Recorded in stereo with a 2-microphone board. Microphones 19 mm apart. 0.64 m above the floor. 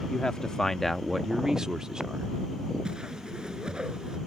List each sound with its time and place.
0.1 s a man speaking: 55° left (ahead or behind); by 2.3 s 55° right (ahead or behind)
2.9 s a whoosh: 50° right (ahead or behind)